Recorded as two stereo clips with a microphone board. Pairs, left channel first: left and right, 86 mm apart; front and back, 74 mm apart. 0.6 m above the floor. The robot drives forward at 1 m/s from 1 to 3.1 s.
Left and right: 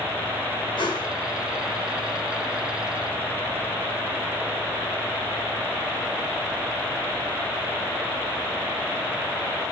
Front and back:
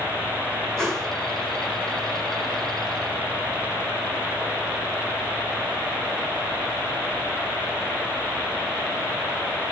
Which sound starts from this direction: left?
A whoosh, at 0.8 s.